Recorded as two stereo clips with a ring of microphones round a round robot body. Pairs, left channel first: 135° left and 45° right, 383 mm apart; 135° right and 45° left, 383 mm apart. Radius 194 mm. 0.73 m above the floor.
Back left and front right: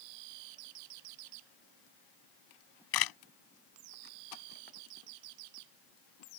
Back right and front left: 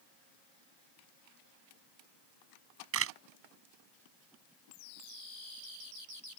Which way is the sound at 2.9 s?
100° left.